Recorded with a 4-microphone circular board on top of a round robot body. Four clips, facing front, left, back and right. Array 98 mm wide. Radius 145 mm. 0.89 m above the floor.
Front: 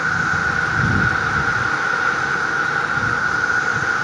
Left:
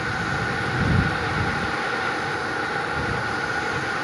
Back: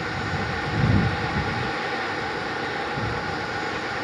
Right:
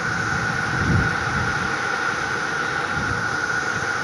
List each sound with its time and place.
0.0 s an insect: 15° right